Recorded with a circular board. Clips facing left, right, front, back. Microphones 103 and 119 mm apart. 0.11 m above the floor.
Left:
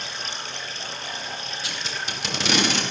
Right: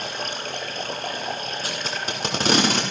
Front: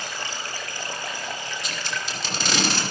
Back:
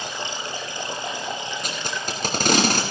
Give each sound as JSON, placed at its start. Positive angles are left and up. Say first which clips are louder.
{"t": 0.0, "sound": "running water", "louder": "right 5 dB, back 3 dB", "azimuth_deg": -115, "distance_m": 1.8}
{"t": 1.6, "sound": "tape being pulled", "louder": "right 4 dB, back 3 dB", "azimuth_deg": -135, "distance_m": 5.0}